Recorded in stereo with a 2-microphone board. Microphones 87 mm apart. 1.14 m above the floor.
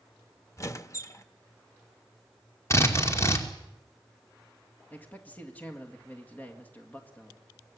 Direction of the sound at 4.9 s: 20° left (ahead or behind).